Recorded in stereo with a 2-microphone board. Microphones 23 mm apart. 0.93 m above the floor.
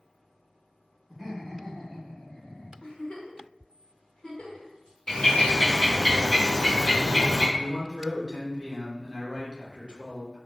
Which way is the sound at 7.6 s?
30° right (ahead or behind).